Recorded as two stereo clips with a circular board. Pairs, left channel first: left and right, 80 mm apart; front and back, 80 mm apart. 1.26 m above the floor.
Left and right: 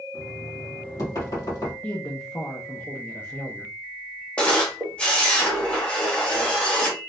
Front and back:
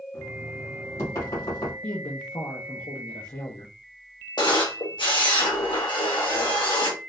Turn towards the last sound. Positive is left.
turn(degrees=15)